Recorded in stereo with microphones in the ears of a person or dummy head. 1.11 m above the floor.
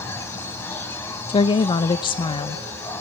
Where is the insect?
10° left (ahead or behind), 2 m.